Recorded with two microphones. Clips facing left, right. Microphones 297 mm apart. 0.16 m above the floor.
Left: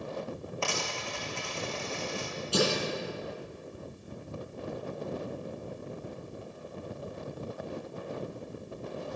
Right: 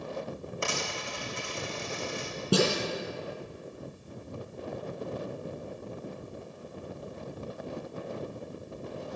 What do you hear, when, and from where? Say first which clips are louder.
0.6 s a dropped coin: right 1 dB; 20° right (ahead or behind), 2.5 m
2.5 s a snare drum: right 3 dB; 70° right (ahead or behind), 3.5 m